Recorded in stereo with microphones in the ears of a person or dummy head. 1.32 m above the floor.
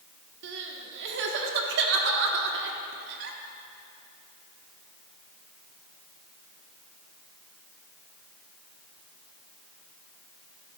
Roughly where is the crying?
Right.